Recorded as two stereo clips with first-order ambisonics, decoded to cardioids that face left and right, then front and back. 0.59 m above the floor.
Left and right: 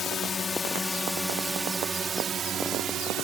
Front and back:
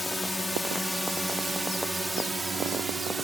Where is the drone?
70° left; by 3.2 s 105° right.